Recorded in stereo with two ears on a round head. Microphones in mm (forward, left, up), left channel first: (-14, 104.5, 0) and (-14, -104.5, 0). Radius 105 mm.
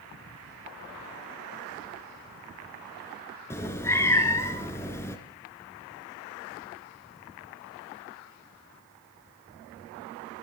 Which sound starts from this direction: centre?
A cat meowing, at 3.5 s.